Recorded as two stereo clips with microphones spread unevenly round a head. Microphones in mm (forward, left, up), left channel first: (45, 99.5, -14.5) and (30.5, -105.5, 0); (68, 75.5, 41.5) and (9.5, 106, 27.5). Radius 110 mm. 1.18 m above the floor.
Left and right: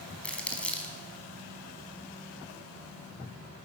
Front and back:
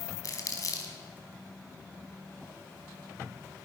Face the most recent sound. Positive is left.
turn(degrees=0)